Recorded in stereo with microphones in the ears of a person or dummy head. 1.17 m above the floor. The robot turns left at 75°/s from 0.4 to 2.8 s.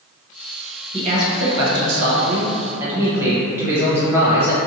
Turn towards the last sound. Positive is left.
turn(degrees=-165)